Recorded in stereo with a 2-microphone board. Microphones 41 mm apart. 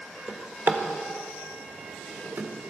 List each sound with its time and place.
0.3 s a drawer: 50° right (ahead or behind), 1.1 m